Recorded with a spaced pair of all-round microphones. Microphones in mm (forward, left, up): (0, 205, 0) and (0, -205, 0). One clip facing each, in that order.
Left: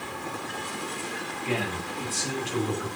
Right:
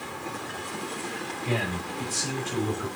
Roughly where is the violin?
No violin in this recording.